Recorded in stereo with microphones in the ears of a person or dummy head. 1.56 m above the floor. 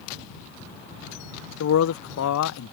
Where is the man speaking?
75° left (ahead or behind).